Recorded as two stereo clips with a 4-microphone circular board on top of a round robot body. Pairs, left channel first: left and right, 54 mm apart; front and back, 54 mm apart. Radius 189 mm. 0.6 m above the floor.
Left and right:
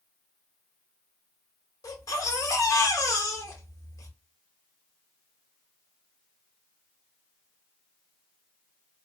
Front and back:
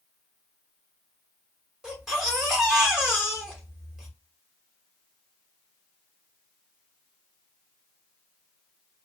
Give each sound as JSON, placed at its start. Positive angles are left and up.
{"t": 1.8, "sound": "a baby crying", "azimuth_deg": 100, "distance_m": 1.4}